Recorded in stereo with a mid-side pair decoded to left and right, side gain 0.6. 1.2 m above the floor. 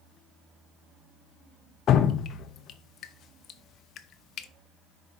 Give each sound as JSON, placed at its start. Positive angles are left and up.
{"t": 1.9, "sound": "dripping", "azimuth_deg": 50, "distance_m": 0.9}